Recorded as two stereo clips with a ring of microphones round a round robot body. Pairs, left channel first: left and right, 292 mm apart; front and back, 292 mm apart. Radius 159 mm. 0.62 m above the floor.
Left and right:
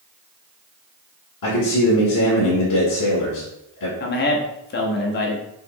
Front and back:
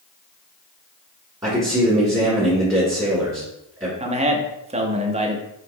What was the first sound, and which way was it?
A man speaking, 100° left.